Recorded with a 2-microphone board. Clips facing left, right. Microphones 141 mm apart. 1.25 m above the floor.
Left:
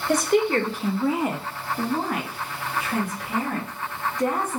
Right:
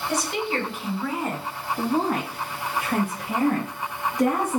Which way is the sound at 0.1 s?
50° left (ahead or behind).